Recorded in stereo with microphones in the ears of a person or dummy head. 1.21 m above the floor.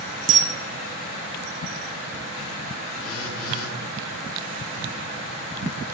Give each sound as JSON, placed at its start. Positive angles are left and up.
{"t": 0.3, "sound": "a camera shutter", "side_deg": -35, "distance_m": 0.9}
{"t": 3.0, "sound": "a phone buzzing", "side_deg": 50, "distance_m": 2.0}